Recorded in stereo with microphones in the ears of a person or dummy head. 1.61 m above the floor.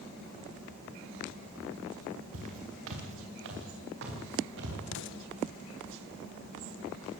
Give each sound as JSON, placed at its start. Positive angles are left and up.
{"t": 2.3, "sound": "footsteps", "side_deg": -75, "distance_m": 8.0}
{"t": 4.9, "sound": "an explosion", "side_deg": 70, "distance_m": 1.6}